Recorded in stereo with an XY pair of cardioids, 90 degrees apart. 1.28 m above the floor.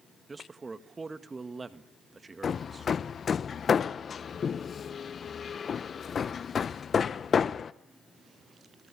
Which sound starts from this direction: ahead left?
Hammering, at 2.4 s.